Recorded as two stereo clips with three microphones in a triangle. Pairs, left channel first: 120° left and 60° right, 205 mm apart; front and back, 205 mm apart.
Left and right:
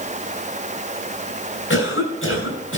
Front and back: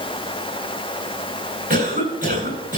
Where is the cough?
130° left, 7.5 m.